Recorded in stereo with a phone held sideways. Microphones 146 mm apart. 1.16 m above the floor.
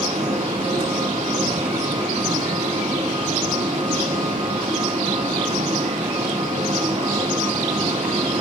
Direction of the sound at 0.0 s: 50° right (ahead or behind).